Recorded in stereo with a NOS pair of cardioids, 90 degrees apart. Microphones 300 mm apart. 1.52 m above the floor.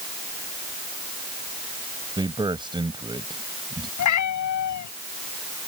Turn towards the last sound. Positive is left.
turn(degrees=65)